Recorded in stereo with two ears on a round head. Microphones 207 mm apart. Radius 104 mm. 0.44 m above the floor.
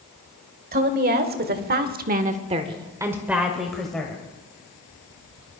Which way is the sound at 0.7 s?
40° right (ahead or behind).